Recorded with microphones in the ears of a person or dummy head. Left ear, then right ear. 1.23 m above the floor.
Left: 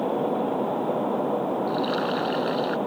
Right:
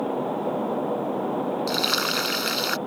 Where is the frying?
80° right.